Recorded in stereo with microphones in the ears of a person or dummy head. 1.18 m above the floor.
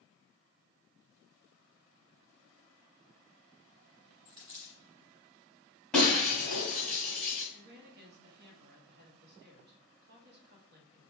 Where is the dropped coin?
20° right (ahead or behind), 1.1 m.